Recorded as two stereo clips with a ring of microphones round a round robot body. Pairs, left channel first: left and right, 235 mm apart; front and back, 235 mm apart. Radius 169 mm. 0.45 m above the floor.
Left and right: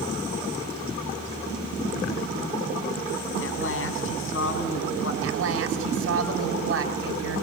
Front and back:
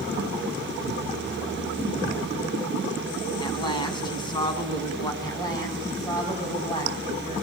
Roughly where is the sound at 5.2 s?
Right.